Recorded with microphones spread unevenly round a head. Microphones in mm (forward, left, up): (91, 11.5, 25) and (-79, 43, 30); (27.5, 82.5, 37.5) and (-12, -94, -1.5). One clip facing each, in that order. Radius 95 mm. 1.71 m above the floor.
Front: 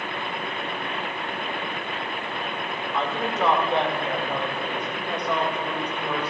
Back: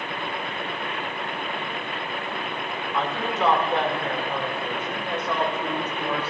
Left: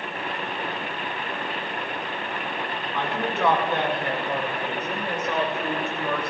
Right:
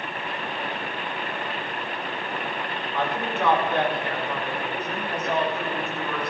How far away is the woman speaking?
About 5.5 m.